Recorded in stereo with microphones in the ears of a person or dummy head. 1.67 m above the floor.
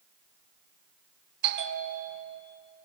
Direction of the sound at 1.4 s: 60° right (ahead or behind).